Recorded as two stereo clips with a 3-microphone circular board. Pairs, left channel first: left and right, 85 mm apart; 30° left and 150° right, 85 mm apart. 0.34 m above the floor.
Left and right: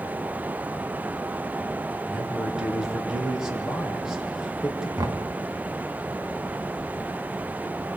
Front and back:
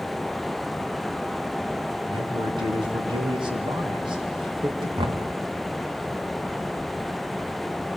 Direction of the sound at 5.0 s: 135° right.